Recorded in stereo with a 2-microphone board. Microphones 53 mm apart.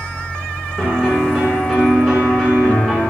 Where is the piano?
5° right (ahead or behind), 1.1 m.